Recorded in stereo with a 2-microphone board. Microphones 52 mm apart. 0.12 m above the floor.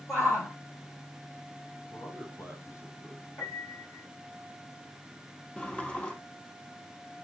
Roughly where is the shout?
Left.